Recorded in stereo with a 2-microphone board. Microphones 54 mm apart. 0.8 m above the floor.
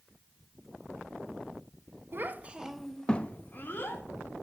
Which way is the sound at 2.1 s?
40° right (ahead or behind).